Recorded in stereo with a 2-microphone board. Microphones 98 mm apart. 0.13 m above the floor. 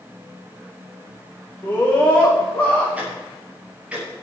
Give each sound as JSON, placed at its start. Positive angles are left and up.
{"t": 1.6, "sound": "a scream", "side_deg": 25, "distance_m": 8.5}
{"t": 3.0, "sound": "ticking", "side_deg": -15, "distance_m": 8.0}